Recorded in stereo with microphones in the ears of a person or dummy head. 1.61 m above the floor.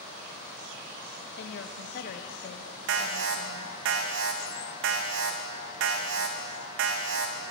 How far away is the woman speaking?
About 1.1 m.